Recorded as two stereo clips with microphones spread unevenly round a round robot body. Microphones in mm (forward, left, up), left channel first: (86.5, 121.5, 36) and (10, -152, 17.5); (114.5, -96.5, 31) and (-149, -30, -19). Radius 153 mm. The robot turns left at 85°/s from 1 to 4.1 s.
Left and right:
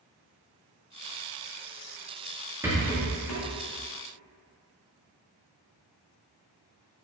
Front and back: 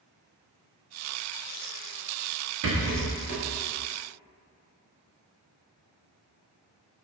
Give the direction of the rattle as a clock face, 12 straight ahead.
6 o'clock.